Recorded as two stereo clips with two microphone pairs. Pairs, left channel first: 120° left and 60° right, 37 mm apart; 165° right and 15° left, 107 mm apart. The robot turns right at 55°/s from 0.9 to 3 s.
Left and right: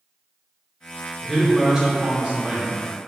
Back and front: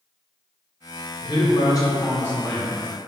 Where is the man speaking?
160° right, 0.7 m; by 2.7 s 80° right, 0.7 m.